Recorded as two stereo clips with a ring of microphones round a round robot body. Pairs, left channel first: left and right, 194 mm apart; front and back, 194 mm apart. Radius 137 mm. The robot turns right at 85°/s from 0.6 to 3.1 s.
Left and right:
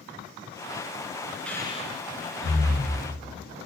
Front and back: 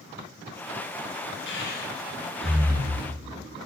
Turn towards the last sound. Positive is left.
turn(degrees=145)